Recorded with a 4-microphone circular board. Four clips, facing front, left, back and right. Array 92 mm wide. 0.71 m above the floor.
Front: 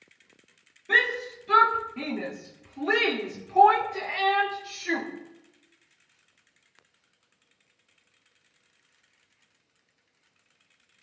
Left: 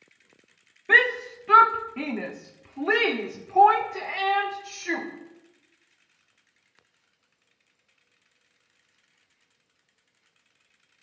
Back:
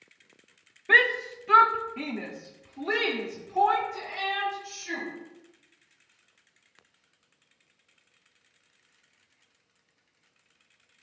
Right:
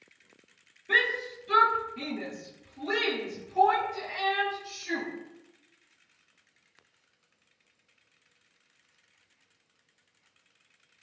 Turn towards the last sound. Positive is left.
turn(degrees=60)